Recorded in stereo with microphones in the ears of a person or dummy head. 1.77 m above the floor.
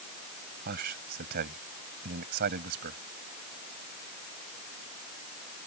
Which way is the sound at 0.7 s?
50° right (ahead or behind).